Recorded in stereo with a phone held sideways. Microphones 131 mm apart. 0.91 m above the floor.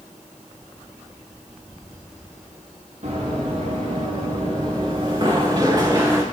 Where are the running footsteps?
65° right (ahead or behind), 4 m; by 6.2 s 25° right (ahead or behind), 3 m.